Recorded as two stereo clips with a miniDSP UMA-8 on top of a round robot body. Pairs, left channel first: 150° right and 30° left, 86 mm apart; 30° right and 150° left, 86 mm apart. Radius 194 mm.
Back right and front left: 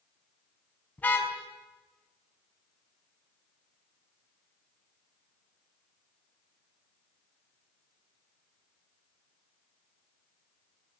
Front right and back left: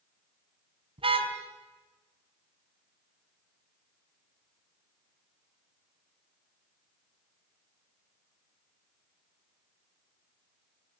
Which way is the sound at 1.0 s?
135° left.